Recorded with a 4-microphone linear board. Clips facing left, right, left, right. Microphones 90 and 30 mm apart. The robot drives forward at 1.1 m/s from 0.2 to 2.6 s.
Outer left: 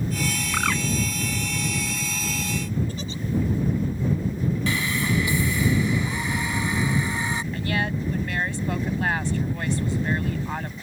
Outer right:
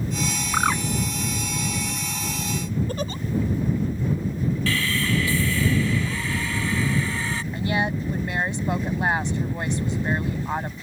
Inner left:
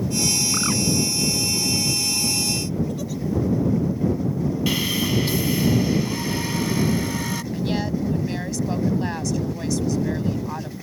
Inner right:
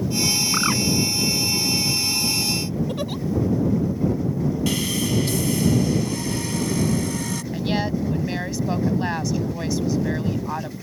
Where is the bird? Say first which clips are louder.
Outer right 4 dB, inner right 2 dB; 25° right (ahead or behind).